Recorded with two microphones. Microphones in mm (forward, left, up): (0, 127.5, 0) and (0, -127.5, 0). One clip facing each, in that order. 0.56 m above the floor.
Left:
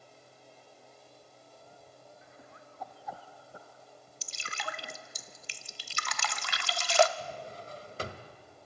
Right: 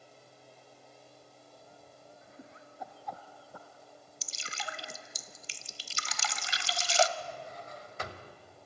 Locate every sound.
2.2 s laughter: 45° right (ahead or behind), 1.6 m; by 5.2 s 45° left (ahead or behind), 4 m
4.2 s dripping: 65° left (ahead or behind), 0.8 m
7.2 s a drawer: 35° left (ahead or behind), 1.5 m